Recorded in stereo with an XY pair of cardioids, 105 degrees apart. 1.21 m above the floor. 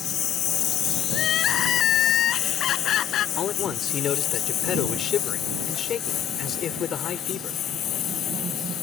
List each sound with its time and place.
0.0 s a lawn mower: 65° left; by 8.8 s 75° left
1.1 s crying: 70° left
3.4 s a man speaking: 60° left